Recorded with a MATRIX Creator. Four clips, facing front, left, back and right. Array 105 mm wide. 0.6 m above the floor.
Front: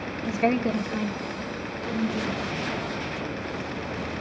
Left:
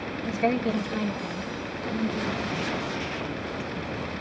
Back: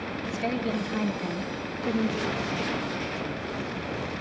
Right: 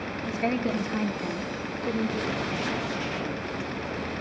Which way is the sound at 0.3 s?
5° left.